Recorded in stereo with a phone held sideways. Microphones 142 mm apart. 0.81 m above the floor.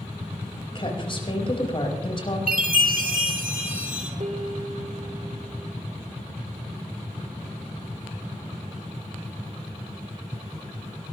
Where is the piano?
55° right (ahead or behind), 1.6 m.